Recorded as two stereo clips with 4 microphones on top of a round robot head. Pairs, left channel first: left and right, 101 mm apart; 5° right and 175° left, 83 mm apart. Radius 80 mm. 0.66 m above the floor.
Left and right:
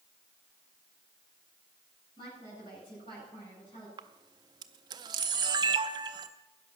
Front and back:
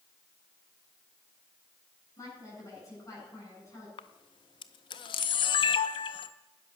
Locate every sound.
2.2 s a woman speaking: 45° left, 8.5 m
4.0 s a camera shutter: 35° right, 0.5 m